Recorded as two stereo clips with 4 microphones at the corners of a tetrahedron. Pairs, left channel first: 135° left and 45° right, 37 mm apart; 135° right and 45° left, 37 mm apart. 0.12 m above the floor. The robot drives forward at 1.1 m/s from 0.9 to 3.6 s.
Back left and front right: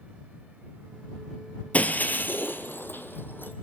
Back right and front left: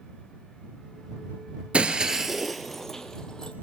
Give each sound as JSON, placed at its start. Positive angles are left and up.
{"t": 1.7, "sound": "breaking glass", "azimuth_deg": 95, "distance_m": 1.2}